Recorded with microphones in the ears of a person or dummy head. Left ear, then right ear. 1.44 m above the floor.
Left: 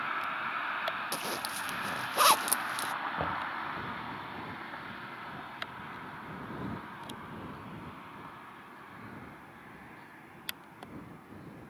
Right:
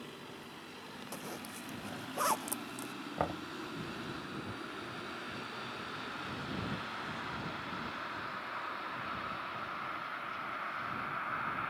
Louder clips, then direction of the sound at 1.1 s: Left 9 dB; 30° left (ahead or behind).